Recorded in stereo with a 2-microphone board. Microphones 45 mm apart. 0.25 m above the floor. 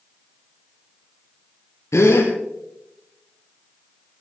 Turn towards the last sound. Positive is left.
turn(degrees=85)